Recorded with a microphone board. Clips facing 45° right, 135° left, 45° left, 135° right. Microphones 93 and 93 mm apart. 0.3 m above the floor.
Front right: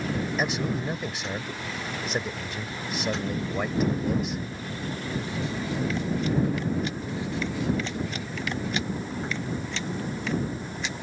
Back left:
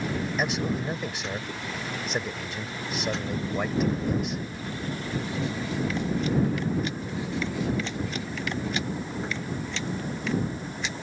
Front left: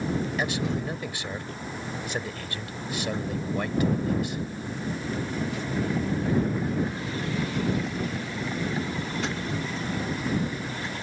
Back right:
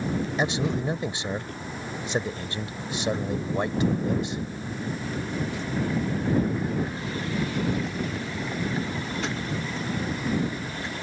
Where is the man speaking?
135° right.